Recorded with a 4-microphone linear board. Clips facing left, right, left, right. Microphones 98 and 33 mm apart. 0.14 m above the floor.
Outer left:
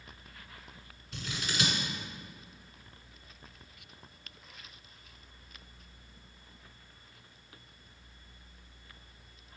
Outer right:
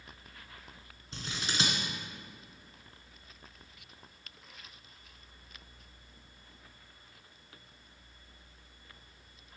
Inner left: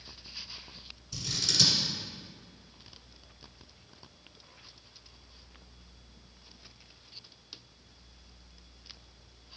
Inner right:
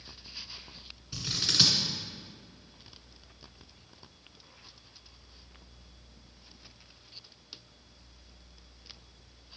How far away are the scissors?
About 1.3 m.